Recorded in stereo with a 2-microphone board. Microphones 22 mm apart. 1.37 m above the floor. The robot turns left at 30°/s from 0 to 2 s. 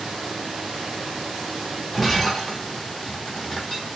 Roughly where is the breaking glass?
Centre.